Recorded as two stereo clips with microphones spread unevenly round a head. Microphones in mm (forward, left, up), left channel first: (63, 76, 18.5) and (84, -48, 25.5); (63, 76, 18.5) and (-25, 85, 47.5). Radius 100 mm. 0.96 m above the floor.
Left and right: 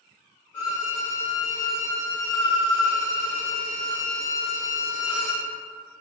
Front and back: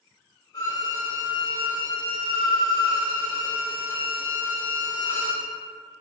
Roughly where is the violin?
Ahead left.